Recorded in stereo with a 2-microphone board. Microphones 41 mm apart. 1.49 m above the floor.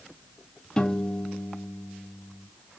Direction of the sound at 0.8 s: 15° left (ahead or behind).